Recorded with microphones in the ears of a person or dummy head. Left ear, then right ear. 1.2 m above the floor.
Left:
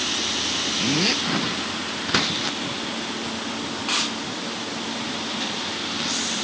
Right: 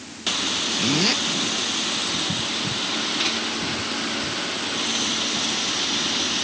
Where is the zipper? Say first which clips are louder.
Right 1 dB; centre (ahead or behind).